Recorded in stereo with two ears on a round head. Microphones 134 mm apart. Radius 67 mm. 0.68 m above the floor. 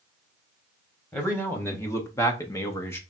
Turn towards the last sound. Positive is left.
turn(degrees=15)  # may be behind; listen again after turning